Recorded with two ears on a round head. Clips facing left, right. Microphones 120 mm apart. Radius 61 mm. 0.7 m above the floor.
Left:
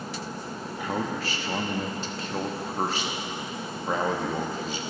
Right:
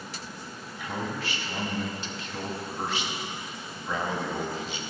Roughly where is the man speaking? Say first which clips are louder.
Left 4 dB; left.